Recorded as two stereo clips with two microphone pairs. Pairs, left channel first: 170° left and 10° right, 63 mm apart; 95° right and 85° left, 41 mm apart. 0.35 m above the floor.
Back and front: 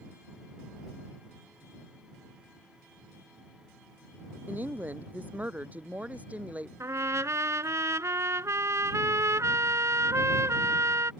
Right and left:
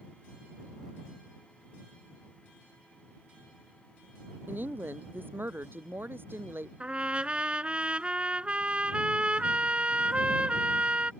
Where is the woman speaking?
50° left; by 6.7 s 60° left.